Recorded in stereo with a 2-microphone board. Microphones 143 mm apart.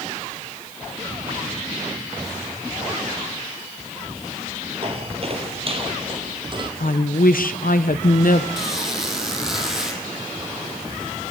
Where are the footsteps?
45° right (ahead or behind), 1.8 m; by 6.7 s 35° right (ahead or behind), 3 m.